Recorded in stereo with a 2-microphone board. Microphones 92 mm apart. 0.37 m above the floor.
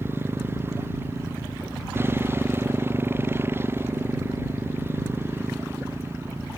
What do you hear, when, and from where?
0.0 s a motorcycle: 25° right (ahead or behind)